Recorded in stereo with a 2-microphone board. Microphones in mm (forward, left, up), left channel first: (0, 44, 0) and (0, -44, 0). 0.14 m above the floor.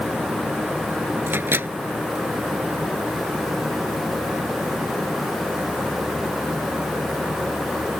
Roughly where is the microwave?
Right.